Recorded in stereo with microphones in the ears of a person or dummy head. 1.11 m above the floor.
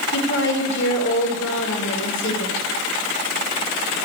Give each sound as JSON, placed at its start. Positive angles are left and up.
{"t": 0.1, "sound": "a woman speaking", "side_deg": 65, "distance_m": 4.5}